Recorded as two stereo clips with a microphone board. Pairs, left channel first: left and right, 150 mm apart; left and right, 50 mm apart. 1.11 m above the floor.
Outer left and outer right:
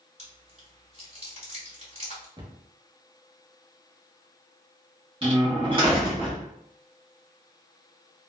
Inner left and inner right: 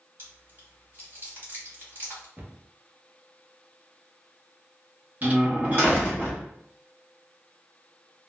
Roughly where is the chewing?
Right.